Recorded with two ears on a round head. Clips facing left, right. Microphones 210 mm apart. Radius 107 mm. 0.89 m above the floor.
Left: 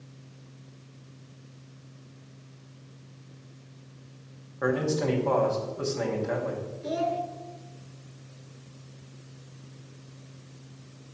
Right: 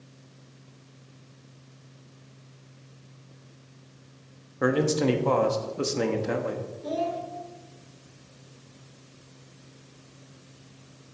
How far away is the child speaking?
About 1.2 m.